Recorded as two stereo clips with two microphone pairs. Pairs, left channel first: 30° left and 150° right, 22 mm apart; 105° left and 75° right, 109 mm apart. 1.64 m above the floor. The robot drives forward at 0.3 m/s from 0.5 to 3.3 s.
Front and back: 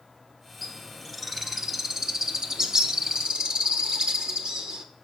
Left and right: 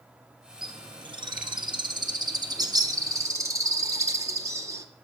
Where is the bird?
55° right, 0.9 m; by 4.8 s 130° right, 0.9 m.